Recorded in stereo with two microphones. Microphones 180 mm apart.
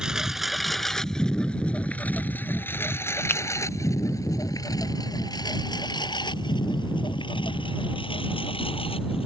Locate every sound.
0.0 s a lawn mower: 5° right (ahead or behind); by 9.3 s 30° left (ahead or behind)
3.3 s a finger snap: 10° left (ahead or behind)